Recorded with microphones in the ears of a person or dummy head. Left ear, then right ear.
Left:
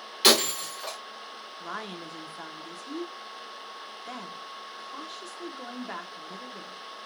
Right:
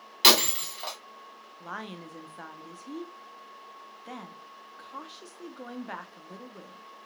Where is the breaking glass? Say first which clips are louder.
Right 1 dB; 20° right (ahead or behind), 1.9 m.